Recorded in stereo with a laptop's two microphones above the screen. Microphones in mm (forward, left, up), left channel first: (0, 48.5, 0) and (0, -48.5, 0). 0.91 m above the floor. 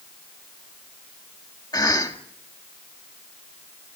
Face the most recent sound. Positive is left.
turn(degrees=40)  # may be behind; listen again after turning